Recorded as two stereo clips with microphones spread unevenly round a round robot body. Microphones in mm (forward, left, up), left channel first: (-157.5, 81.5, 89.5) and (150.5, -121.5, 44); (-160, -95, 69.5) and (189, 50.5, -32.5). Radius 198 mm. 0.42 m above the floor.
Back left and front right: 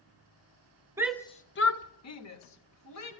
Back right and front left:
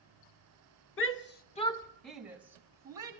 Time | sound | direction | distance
1.0 | a shout | 100° right | 0.9 m